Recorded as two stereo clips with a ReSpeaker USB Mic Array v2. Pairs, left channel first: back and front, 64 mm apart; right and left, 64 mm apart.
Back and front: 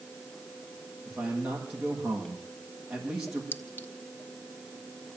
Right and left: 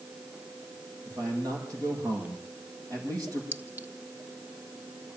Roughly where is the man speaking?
Left.